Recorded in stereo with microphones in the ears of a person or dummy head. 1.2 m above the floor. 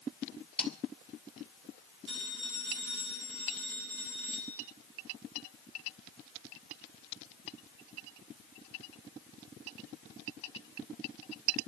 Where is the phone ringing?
60° right (ahead or behind), 8.5 m.